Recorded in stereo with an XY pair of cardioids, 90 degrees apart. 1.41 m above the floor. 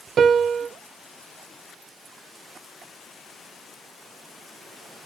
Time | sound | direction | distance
0.2 | a piano | 60° right | 0.7 m